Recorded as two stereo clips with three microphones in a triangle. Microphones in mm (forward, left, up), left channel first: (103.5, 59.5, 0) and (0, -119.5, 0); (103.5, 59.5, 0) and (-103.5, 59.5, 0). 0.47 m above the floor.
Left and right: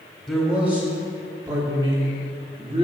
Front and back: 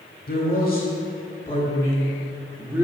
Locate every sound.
0.3 s a man speaking: 20° right, 1.7 m; by 2.9 s 115° right, 1.3 m